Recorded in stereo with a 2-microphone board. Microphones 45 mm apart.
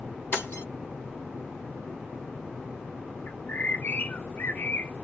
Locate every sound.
0.3 s breaking glass: 60° left (ahead or behind), 2.5 m
3.3 s a bird: 45° left (ahead or behind), 0.6 m